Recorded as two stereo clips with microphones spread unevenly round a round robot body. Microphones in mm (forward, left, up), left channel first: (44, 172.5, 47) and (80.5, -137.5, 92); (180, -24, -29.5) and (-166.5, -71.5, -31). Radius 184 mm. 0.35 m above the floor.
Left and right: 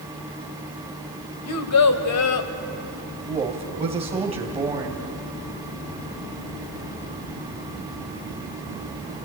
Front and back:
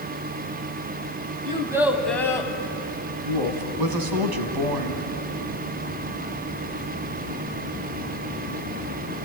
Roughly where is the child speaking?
Behind left.